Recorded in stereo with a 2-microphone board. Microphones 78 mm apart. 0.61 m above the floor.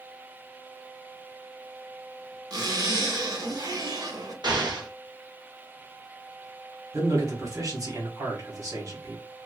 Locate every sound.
2.5 s a zipper: 55° right (ahead or behind), 1.0 m
4.4 s an explosion: 70° right (ahead or behind), 1.0 m
6.9 s a man speaking: 45° right (ahead or behind), 1.3 m